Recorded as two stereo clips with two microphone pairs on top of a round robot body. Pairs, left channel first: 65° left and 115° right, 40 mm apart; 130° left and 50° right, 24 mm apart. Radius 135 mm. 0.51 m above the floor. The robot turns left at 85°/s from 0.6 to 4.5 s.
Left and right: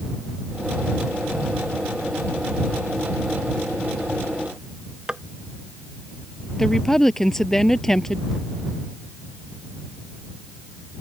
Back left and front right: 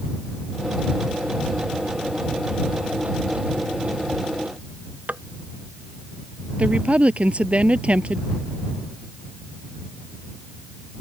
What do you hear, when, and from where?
5.1 s tapping: 40° right
6.6 s a woman speaking: 15° right